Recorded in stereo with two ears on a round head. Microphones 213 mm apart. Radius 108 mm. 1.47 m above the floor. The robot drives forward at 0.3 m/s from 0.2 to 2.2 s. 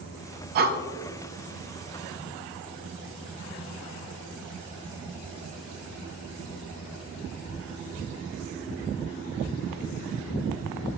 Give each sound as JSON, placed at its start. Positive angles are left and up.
{"t": 0.6, "sound": "breathing", "side_deg": -45, "distance_m": 1.1}